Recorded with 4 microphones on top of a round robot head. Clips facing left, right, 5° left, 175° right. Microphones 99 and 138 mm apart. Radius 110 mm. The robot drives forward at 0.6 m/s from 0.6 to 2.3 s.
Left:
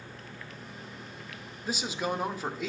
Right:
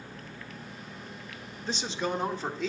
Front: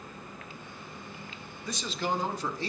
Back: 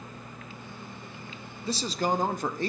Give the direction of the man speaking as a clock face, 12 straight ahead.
7 o'clock.